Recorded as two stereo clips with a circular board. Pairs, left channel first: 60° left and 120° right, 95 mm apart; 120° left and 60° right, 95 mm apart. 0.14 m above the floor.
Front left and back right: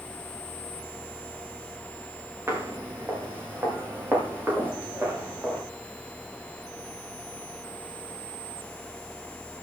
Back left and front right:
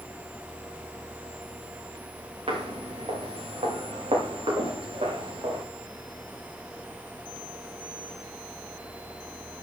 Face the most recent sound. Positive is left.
turn(degrees=-55)